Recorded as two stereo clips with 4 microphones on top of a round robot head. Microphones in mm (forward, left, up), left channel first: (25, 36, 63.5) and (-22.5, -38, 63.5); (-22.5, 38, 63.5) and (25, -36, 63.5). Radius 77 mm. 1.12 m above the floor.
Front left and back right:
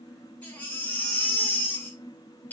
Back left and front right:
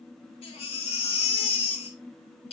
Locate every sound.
0.4 s a baby crying: 130° left, 2.5 m